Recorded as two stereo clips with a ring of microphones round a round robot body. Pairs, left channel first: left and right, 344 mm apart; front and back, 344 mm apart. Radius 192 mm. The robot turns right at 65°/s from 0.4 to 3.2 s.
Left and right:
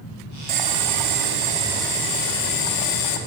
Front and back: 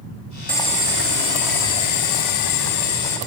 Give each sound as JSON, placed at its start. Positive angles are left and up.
{"t": 0.5, "sound": "boiling", "azimuth_deg": -85, "distance_m": 2.5}